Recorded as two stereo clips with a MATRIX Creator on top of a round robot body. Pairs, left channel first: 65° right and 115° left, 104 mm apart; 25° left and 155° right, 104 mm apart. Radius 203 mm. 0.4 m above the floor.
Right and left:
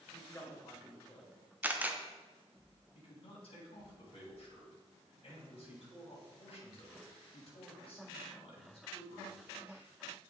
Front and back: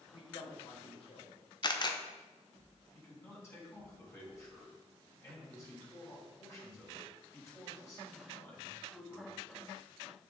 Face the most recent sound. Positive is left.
turn(degrees=-40)